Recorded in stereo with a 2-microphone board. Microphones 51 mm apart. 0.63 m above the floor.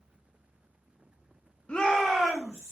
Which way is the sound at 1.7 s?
25° left (ahead or behind).